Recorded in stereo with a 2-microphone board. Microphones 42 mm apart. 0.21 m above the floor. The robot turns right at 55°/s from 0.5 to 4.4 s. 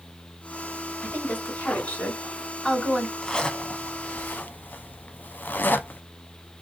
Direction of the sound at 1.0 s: 30° left (ahead or behind).